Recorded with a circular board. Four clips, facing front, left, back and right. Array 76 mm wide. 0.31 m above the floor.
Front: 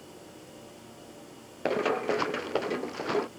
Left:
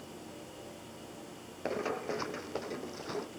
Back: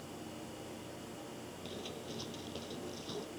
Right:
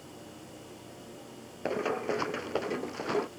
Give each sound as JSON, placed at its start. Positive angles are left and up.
{"t": 1.6, "sound": "running footsteps", "azimuth_deg": -10}